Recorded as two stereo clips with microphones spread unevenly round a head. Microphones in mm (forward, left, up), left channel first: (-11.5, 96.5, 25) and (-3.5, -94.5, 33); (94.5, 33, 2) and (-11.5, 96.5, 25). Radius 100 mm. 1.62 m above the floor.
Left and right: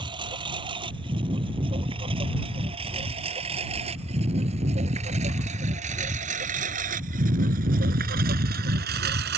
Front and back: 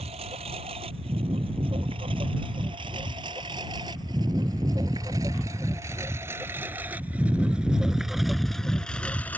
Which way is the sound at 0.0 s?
150° right.